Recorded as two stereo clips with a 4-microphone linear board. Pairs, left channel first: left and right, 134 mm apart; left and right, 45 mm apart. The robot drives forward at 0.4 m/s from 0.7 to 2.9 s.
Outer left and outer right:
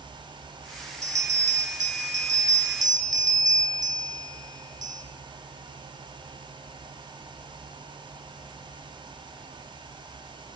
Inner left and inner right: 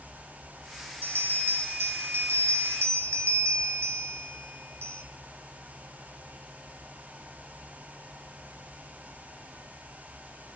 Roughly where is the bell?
Right.